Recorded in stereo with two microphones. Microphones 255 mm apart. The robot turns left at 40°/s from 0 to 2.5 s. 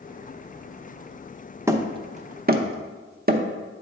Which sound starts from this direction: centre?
Hammering, at 1.7 s.